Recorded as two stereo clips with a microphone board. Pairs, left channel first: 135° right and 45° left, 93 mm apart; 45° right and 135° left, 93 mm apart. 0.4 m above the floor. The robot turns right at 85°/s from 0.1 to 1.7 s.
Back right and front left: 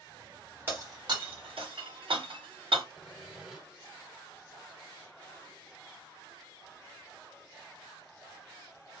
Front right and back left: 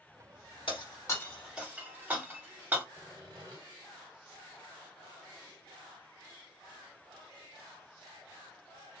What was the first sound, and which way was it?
Breaking glass, 20° right.